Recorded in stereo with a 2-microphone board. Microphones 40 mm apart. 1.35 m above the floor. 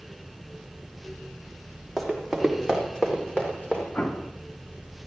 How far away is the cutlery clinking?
I don't hear cutlery clinking.